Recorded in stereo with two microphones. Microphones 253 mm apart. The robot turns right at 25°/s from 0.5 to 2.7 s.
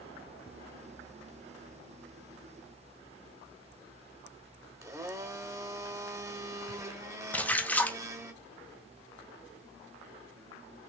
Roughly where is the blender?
Centre.